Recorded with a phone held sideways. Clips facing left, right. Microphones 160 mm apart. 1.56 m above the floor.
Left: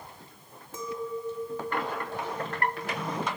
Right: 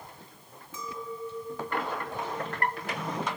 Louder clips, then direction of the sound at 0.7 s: Left 4 dB; 50° left (ahead or behind).